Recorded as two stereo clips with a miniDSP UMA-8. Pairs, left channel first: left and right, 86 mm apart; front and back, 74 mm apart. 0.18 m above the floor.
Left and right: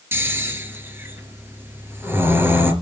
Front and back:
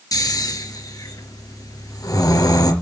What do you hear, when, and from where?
0.1 s snoring: 30° right, 3.5 m